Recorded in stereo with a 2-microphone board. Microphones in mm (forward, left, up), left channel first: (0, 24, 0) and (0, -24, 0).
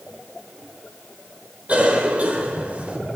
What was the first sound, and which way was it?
A cough, 30° right (ahead or behind).